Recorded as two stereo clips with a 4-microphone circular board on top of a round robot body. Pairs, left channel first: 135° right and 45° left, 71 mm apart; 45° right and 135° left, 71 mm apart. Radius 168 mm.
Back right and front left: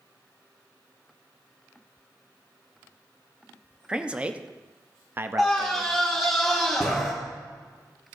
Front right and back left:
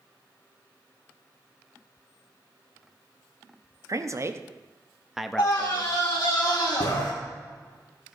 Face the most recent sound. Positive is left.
turn(degrees=-45)